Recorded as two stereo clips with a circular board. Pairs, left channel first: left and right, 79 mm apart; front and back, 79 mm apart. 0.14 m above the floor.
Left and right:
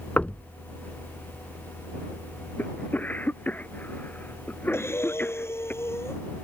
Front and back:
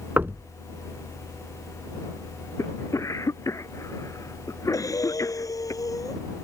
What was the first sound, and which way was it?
Knocking, 145° left.